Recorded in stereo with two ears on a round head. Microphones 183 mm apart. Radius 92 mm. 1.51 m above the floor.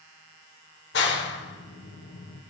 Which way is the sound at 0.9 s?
60° left (ahead or behind).